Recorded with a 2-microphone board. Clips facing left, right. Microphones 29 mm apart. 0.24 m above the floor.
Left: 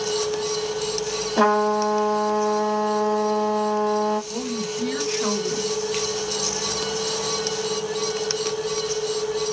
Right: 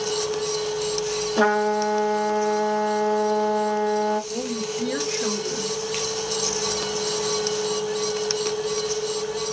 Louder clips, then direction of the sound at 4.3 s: Even; 50° left (ahead or behind).